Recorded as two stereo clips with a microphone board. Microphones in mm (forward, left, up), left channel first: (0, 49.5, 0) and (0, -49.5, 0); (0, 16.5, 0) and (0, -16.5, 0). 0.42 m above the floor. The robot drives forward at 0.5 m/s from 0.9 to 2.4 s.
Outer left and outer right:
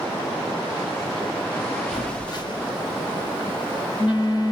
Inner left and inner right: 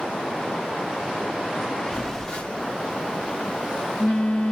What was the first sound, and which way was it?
A phone buzzing, 40° left (ahead or behind).